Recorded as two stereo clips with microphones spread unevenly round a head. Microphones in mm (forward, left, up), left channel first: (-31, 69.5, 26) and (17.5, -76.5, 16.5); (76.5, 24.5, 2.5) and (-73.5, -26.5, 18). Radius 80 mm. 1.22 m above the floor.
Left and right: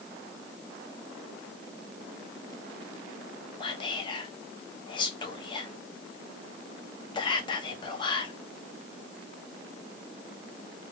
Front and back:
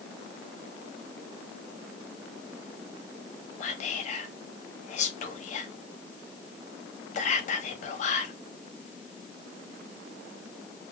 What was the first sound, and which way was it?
Whispering, 50° left.